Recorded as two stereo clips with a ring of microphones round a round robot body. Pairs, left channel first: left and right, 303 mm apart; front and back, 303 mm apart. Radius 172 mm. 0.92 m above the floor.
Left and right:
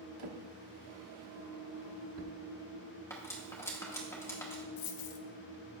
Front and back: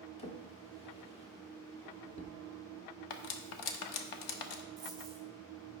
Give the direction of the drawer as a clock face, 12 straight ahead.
2 o'clock.